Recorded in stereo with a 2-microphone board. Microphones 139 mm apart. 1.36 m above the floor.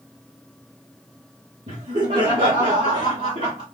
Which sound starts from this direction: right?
Laughter, at 1.7 s.